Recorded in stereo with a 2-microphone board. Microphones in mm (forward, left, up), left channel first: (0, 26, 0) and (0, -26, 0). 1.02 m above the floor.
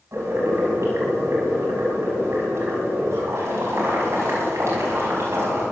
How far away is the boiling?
About 5.5 m.